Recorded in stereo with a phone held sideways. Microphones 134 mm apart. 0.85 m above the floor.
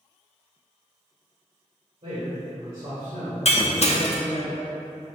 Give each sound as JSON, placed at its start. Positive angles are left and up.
{"t": 2.0, "sound": "a man speaking", "side_deg": -60, "distance_m": 2.0}
{"t": 3.5, "sound": "breaking glass", "side_deg": 60, "distance_m": 0.5}